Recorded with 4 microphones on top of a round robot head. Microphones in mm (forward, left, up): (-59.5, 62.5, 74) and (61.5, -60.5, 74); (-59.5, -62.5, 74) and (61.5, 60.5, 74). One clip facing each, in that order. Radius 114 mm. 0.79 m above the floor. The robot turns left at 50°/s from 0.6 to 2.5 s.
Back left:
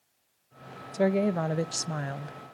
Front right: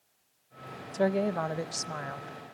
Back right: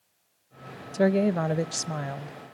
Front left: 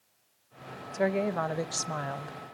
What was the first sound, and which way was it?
A woman speaking, 150° right.